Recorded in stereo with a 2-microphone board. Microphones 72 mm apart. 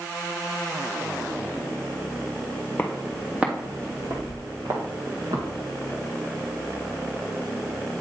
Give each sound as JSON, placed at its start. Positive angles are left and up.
{"t": 2.8, "sound": "footsteps", "side_deg": 20, "distance_m": 1.3}